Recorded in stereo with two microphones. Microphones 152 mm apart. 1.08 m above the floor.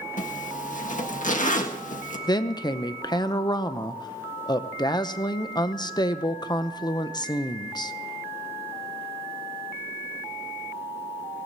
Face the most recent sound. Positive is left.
turn(degrees=30)  # may be behind; listen again after turning